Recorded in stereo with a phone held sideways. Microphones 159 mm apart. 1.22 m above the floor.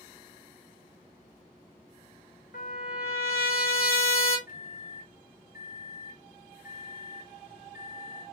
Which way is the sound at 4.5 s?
60° left (ahead or behind).